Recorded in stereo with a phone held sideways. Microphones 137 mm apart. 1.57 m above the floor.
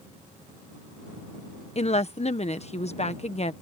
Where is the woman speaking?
50° left (ahead or behind).